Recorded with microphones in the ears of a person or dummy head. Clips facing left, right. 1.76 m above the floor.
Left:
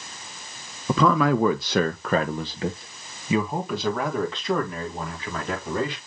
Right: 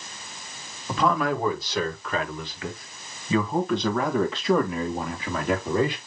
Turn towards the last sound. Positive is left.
turn(degrees=-15)  # may be behind; listen again after turning